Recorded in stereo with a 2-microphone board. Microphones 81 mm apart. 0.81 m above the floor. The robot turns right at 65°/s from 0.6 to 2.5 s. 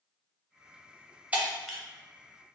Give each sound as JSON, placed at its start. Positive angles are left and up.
{"t": 1.3, "sound": "breaking glass", "side_deg": -15, "distance_m": 0.7}